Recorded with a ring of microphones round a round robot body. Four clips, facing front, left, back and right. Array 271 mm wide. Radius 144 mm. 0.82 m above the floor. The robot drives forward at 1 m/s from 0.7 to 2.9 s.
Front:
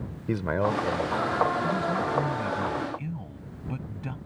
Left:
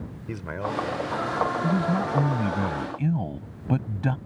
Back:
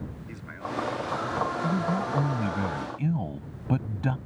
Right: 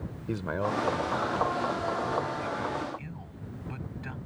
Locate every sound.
0.3 s a man speaking: 10° right
1.6 s a man speaking: 110° left; by 4.2 s 120° left